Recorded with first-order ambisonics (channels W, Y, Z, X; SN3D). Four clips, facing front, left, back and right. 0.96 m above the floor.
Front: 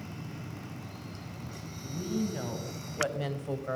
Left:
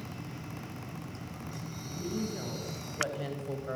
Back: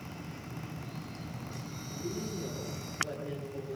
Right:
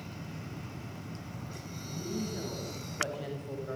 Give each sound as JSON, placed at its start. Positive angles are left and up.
{"t": 1.8, "sound": "a woman speaking", "azimuth_deg": 0, "distance_m": 7.5}